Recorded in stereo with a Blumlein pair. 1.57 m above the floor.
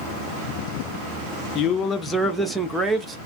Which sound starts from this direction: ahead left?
A man speaking, at 1.6 s.